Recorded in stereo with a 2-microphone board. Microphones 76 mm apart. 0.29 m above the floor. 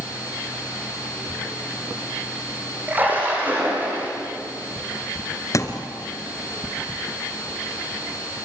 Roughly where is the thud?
Left.